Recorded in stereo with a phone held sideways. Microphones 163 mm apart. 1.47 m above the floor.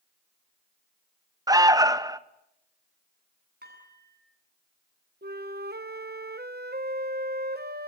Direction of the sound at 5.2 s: 80° right.